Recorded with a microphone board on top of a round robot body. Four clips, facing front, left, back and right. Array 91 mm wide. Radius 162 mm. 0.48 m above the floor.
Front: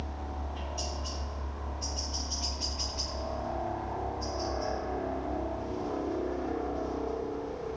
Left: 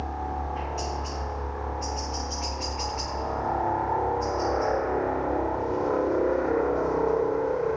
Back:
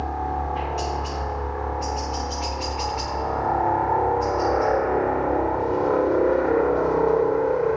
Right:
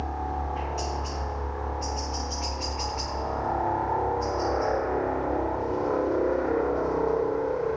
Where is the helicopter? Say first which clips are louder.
Even, back 14 dB; straight behind; by 7.8 s 175° left.